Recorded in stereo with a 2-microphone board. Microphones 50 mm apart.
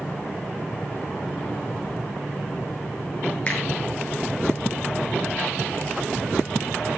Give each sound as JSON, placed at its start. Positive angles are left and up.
{"t": 3.5, "sound": "a finger snap", "side_deg": 20, "distance_m": 6.5}